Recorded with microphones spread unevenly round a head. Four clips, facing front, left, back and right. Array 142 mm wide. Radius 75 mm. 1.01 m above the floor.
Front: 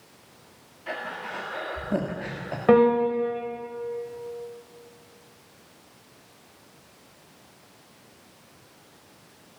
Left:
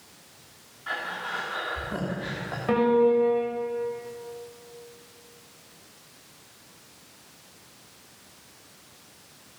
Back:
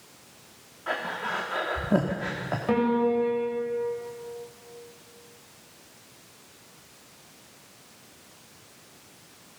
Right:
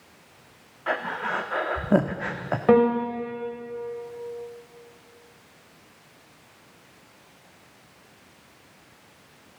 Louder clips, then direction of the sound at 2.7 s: Right 1 dB, front 5 dB; 45° right.